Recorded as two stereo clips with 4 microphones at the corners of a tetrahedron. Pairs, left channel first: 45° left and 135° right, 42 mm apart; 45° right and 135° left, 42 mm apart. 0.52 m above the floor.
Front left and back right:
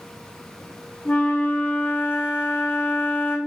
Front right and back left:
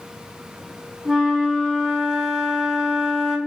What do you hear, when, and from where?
1.1 s a flute: 50° left, 0.8 m